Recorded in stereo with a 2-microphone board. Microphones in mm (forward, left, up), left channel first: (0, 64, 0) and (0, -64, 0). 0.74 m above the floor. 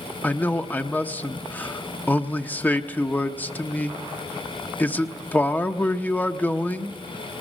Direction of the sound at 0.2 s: 15° left (ahead or behind).